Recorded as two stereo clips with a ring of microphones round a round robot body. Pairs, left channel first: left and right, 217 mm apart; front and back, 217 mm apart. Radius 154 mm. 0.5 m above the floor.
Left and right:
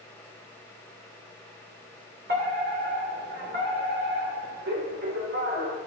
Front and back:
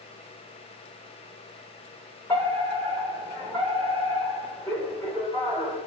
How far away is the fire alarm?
About 3 m.